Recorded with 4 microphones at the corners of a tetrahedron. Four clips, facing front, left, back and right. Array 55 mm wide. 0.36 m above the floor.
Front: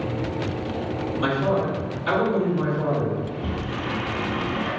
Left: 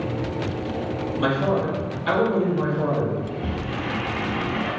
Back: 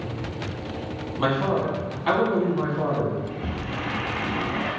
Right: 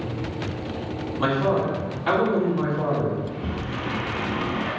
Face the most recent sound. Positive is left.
turn(degrees=155)